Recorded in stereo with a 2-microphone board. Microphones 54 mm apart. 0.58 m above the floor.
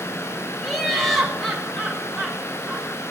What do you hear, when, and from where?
0.6 s laughter: centre (ahead or behind), 3.5 m